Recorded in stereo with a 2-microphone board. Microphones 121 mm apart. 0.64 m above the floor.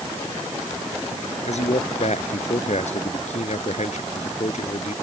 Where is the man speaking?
70° left (ahead or behind).